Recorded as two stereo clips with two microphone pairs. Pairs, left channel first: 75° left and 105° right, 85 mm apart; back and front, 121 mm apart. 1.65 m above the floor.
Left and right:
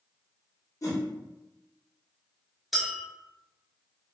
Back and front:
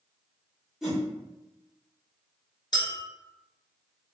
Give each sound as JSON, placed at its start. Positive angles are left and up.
{"t": 0.8, "sound": "a whoosh", "azimuth_deg": 90, "distance_m": 0.8}
{"t": 2.7, "sound": "a clink", "azimuth_deg": 165, "distance_m": 0.7}